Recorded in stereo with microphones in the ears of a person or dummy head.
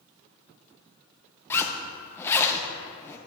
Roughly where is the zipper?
Centre.